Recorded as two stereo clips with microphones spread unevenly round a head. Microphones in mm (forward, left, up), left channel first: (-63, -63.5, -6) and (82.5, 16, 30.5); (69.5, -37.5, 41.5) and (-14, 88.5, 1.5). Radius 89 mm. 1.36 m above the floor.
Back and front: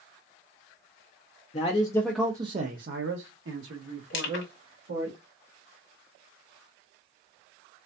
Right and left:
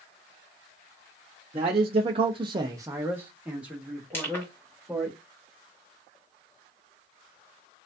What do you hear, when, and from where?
1.5 s a man speaking: 170° left, 0.8 m; by 5.1 s 35° left, 2.5 m
4.1 s crushing: 130° right, 1.6 m